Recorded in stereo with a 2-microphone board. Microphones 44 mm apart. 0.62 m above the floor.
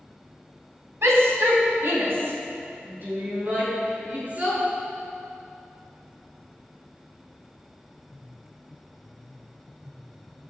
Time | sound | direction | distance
1.0 | a shout | 80° right | 4 m